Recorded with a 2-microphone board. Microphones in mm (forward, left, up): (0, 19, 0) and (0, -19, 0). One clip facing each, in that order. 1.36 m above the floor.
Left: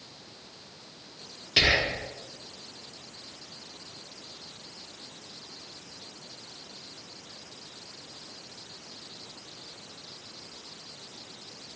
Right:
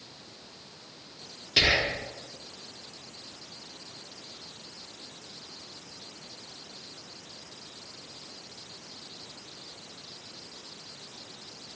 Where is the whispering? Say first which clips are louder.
Left 1 dB; 15° left (ahead or behind), 0.5 m.